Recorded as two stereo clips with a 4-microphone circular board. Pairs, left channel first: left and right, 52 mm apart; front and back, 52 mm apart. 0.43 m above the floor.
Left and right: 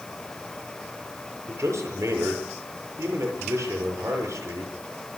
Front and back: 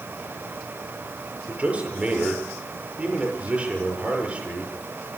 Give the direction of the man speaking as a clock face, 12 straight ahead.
4 o'clock.